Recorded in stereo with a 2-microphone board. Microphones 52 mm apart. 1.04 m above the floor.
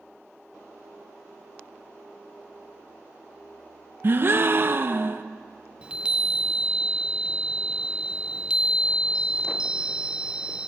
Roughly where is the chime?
Centre.